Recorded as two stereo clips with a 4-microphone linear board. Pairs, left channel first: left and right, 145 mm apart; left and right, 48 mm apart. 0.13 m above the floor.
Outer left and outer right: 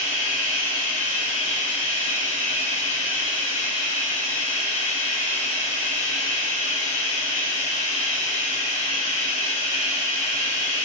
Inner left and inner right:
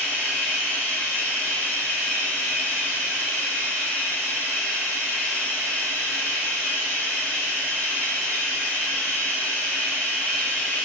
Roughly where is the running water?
Left.